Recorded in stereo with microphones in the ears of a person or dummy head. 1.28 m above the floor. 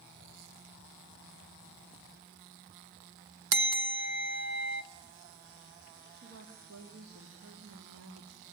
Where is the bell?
70° right (ahead or behind), 1.3 m.